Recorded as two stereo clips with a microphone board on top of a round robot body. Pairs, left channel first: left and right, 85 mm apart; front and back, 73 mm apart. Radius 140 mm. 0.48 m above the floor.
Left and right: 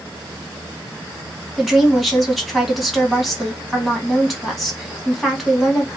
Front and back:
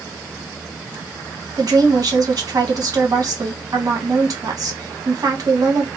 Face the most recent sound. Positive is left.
turn(degrees=180)